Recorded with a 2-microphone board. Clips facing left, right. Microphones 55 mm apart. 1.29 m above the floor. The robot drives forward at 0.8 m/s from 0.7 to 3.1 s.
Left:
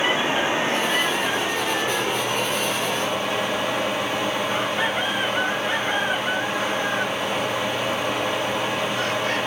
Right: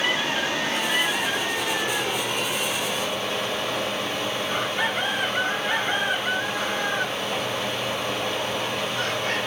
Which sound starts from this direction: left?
Running water, at 0.0 s.